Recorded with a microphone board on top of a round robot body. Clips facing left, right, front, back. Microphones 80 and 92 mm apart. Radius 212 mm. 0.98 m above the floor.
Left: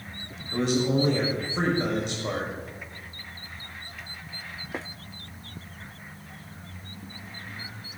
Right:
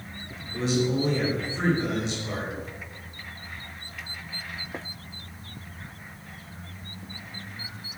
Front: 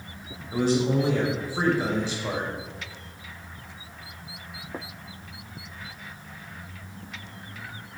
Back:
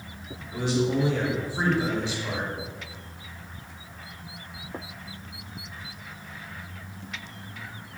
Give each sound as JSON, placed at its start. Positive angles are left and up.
{"t": 0.5, "sound": "a man speaking", "azimuth_deg": 50, "distance_m": 6.0}